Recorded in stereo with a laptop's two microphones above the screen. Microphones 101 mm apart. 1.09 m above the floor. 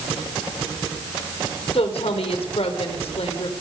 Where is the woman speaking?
75° left (ahead or behind), 3.5 m.